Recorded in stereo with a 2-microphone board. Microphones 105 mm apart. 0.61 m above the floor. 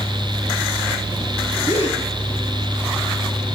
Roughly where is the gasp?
Left.